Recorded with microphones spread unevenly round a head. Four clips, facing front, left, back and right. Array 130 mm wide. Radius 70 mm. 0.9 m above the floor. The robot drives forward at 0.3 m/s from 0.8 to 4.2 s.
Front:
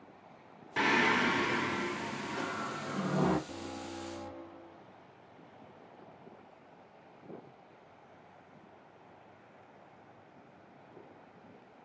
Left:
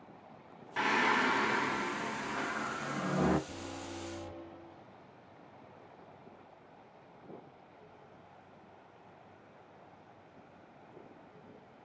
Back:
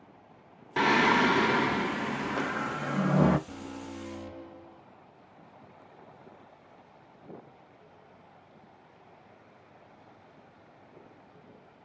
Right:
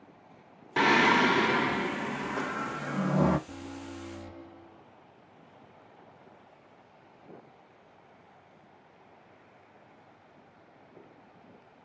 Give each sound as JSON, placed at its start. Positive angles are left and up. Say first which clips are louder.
{"t": 0.8, "sound": "singing", "louder": "right 7 dB, back 5 dB", "azimuth_deg": -110, "distance_m": 0.6}
{"t": 3.5, "sound": "an alarm", "louder": "right 2 dB, back 1 dB", "azimuth_deg": -175, "distance_m": 3.0}